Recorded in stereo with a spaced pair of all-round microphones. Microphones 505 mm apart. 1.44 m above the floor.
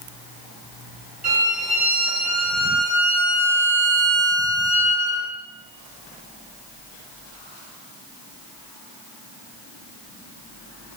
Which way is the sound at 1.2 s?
15° right (ahead or behind).